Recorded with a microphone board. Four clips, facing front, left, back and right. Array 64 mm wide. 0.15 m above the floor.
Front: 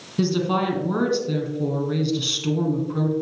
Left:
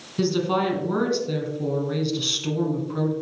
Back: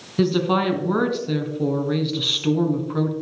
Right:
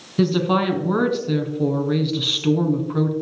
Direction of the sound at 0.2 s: 130° right.